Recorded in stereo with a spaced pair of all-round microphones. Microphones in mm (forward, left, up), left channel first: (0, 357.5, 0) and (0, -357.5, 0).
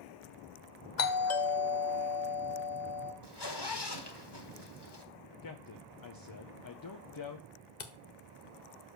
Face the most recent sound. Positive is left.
turn(degrees=75)  # may be behind; listen again after turning